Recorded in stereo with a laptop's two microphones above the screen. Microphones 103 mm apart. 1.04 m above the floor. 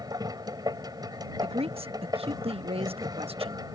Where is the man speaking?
70° right (ahead or behind).